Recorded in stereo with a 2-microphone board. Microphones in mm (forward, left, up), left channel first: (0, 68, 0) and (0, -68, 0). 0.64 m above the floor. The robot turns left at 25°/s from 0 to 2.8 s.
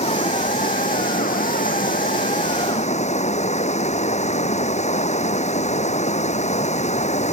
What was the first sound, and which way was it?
Running water, 125° left.